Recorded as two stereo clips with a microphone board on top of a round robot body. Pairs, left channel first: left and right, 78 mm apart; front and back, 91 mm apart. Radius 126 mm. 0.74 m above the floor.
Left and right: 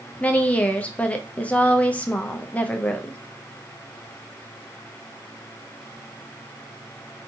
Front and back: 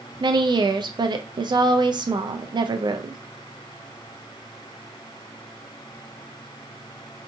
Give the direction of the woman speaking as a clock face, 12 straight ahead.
7 o'clock.